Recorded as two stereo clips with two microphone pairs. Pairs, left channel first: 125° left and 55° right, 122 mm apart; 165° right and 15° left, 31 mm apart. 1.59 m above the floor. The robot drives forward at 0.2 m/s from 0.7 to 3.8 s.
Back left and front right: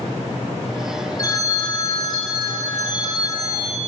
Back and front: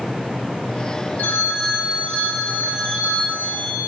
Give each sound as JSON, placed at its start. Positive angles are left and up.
{"t": 1.2, "sound": "a phone ringing", "azimuth_deg": -175, "distance_m": 3.0}